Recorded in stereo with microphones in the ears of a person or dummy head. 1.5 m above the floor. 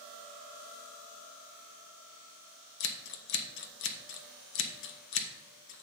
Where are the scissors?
55° left (ahead or behind), 0.8 m.